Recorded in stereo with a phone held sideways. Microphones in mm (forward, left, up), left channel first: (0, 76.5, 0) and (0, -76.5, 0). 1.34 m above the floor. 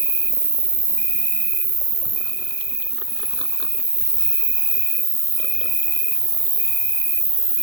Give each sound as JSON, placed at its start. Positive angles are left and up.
{"t": 0.0, "sound": "an insect", "side_deg": -20, "distance_m": 0.8}